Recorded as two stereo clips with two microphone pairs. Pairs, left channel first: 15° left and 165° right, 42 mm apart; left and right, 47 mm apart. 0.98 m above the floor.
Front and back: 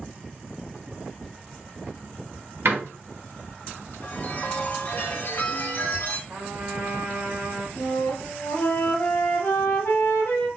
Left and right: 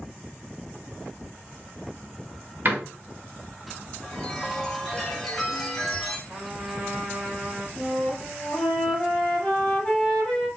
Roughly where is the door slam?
Behind right.